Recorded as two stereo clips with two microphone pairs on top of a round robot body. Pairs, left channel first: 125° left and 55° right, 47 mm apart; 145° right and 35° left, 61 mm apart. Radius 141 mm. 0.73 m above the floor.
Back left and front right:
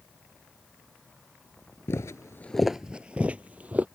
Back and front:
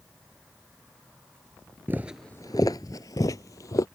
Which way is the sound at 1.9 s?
100° left.